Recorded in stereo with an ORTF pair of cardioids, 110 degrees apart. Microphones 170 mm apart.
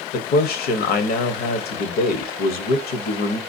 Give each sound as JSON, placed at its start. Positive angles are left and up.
{"t": 0.1, "sound": "a man speaking", "azimuth_deg": 65, "distance_m": 1.0}